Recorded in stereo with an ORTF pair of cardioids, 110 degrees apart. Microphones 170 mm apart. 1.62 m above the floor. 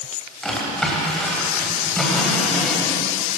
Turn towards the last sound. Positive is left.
turn(degrees=5)